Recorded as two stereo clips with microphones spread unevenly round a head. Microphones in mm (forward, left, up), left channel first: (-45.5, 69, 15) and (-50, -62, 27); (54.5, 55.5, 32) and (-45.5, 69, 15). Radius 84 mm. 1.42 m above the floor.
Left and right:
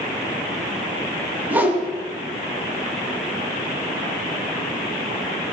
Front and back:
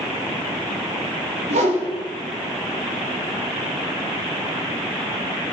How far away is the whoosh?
About 2 m.